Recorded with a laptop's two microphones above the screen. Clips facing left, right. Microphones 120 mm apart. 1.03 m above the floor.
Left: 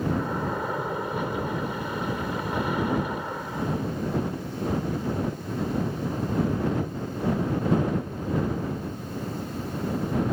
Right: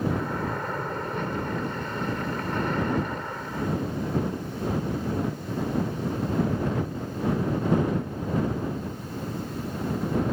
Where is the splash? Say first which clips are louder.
Left 1 dB; 10° left (ahead or behind).